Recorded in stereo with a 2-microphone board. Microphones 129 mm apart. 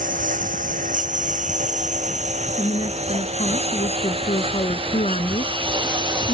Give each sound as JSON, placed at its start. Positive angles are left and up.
{"t": 0.0, "sound": "a lawn mower", "side_deg": -90}
{"t": 2.6, "sound": "a woman speaking", "side_deg": 60}